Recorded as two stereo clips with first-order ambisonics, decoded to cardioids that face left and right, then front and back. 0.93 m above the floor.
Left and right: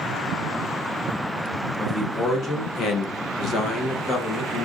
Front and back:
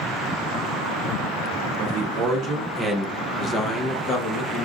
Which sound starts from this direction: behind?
A man speaking, at 1.8 s.